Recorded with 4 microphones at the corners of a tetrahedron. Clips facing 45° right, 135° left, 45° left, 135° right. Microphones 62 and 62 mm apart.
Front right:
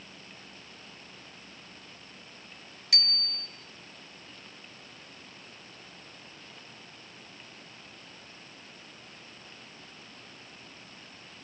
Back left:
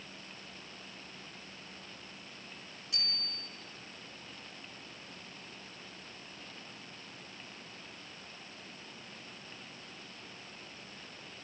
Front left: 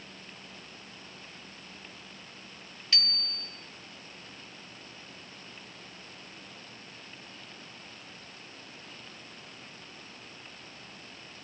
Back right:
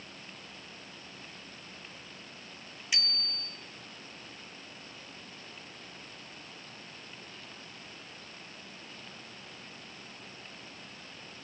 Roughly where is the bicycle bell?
Ahead right.